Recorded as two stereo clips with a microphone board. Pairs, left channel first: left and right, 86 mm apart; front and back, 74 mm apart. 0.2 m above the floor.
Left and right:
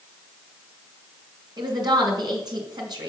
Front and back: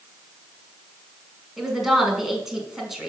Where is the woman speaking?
95° right, 1.8 m.